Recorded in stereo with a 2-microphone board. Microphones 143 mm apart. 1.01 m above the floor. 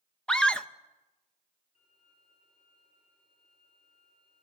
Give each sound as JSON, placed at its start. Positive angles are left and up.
{"t": 0.3, "sound": "a scream", "side_deg": 5, "distance_m": 0.9}
{"t": 1.8, "sound": "a violin", "side_deg": 60, "distance_m": 6.0}